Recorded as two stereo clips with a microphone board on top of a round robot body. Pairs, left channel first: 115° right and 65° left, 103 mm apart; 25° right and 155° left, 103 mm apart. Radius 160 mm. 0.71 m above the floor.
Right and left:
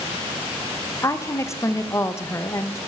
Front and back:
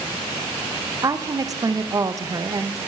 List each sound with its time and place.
1.0 s a woman speaking: 165° right, 0.7 m